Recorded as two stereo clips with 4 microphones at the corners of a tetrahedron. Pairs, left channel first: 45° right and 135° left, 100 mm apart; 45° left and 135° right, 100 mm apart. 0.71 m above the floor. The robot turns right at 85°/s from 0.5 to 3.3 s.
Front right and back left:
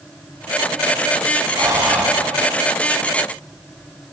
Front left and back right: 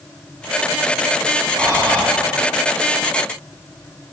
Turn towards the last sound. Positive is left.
turn(degrees=-40)